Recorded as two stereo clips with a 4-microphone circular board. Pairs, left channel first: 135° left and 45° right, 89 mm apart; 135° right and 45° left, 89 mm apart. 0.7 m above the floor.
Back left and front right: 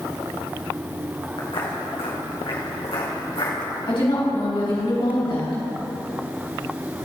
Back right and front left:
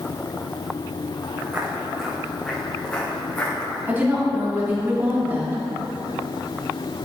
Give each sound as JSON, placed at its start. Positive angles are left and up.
{"t": 1.4, "sound": "footsteps", "azimuth_deg": 110, "distance_m": 3.5}
{"t": 3.9, "sound": "a woman speaking", "azimuth_deg": 115, "distance_m": 4.5}